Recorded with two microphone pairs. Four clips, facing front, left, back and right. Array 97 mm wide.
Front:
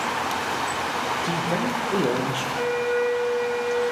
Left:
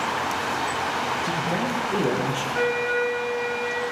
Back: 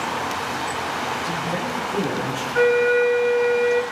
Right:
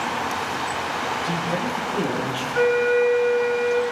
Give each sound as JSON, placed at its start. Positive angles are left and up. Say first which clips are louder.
{"t": 1.2, "sound": "a man speaking", "louder": "even, front 1 dB", "azimuth_deg": 25, "distance_m": 8.0}
{"t": 2.5, "sound": "a flute", "louder": "right 7 dB, back 8 dB", "azimuth_deg": -160, "distance_m": 2.5}